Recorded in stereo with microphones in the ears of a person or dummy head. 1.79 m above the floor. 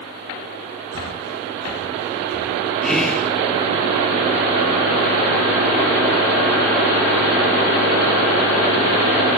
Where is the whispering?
Centre (ahead or behind), 0.9 m.